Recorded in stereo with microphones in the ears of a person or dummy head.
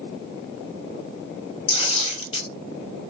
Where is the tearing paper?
35° left (ahead or behind), 3 m.